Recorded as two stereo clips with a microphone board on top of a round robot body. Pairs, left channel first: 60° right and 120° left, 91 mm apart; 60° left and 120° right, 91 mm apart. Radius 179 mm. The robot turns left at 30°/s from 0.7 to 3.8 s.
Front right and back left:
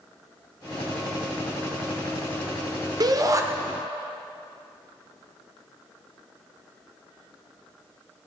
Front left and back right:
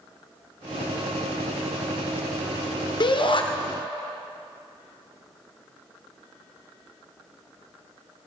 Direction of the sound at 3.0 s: 80° left.